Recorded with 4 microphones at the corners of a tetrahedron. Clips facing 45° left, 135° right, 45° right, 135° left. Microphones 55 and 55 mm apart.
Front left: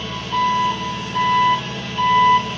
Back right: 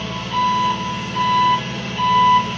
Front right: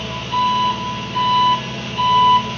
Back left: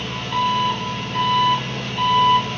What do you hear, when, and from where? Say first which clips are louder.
0.0 s an engine running: even, front right 3 dB; 140° right, 5.5 m